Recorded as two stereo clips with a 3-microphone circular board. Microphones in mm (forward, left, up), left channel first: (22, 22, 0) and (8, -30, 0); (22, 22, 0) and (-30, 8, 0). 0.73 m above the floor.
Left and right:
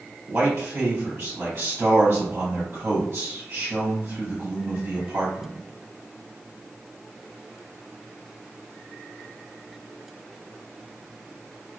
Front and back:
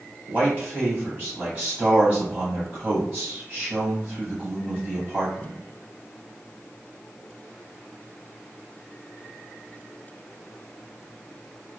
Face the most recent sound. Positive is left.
turn(degrees=-110)